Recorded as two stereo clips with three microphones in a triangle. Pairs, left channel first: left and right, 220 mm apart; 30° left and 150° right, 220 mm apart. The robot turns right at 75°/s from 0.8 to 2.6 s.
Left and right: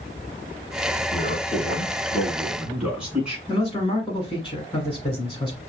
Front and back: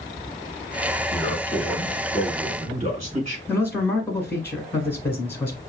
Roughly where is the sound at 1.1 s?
Left.